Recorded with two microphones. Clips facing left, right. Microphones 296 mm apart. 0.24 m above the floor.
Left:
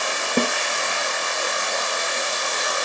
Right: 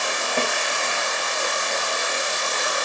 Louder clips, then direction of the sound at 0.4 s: Left 5 dB; 45° left (ahead or behind).